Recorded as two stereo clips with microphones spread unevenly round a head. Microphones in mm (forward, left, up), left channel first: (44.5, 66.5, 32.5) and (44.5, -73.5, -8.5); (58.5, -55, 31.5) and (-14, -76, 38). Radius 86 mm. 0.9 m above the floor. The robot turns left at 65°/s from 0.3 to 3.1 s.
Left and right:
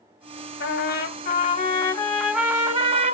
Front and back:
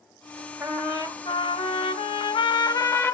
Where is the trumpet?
110° left, 1.5 m; by 3.1 s 50° right, 1.5 m.